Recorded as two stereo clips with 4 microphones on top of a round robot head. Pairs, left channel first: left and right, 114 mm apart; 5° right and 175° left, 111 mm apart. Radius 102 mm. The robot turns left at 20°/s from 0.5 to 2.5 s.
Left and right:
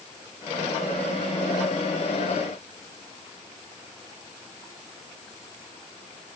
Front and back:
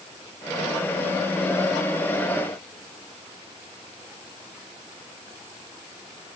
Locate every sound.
Only background noise.